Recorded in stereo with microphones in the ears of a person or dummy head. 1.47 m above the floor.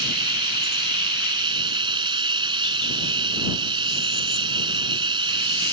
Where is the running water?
30° right (ahead or behind).